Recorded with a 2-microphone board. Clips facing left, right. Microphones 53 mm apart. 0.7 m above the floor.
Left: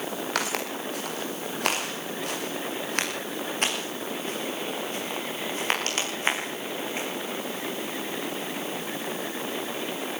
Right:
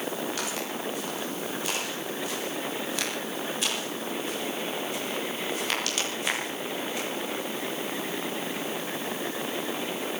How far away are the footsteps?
About 6 m.